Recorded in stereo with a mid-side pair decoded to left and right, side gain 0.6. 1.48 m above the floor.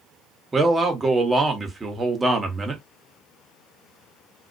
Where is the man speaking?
20° right, 1.0 m.